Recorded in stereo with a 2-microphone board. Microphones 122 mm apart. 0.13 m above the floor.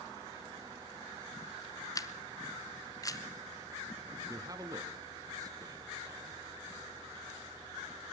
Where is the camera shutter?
25° left (ahead or behind), 1.1 m.